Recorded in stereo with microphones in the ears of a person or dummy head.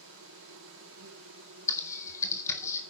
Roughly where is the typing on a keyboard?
Centre.